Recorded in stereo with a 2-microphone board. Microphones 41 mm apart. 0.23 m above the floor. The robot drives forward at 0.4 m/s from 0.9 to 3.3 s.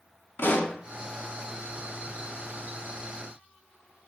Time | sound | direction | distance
0.4 | a pop | 70° left (ahead or behind) | 0.5 m